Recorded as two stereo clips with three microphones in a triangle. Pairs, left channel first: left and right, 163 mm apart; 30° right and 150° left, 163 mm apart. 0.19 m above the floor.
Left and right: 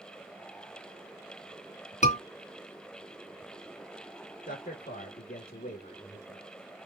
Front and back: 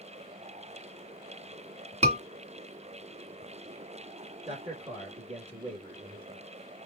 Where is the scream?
115° left, 2.5 m.